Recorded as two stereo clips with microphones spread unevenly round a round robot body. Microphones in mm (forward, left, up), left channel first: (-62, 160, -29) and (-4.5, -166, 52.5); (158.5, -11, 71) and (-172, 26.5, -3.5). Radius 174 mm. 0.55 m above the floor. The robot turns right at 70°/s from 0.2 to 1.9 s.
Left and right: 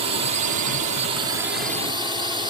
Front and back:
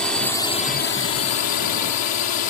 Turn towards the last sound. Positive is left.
turn(degrees=10)